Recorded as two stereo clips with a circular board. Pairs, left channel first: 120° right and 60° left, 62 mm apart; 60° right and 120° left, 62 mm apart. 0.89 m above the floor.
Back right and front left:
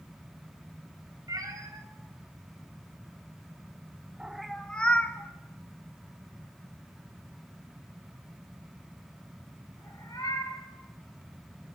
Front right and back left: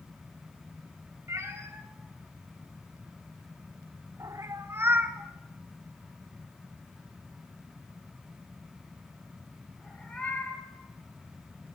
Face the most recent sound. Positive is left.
turn(degrees=-130)